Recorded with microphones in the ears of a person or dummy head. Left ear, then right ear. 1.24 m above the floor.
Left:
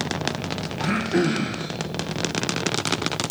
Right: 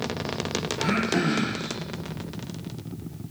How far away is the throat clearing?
About 0.6 m.